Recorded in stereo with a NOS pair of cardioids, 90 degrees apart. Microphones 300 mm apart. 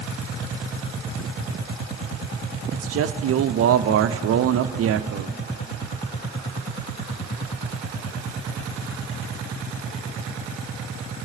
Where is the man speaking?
50° right, 0.6 m.